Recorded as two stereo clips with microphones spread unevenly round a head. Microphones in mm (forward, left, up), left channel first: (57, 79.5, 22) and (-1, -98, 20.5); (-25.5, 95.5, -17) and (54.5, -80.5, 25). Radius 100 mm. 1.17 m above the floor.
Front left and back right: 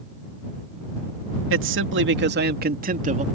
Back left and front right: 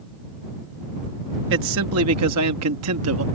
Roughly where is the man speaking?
Right.